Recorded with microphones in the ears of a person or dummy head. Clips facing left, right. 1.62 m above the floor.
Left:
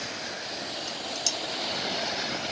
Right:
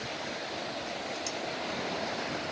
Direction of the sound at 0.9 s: 85° left.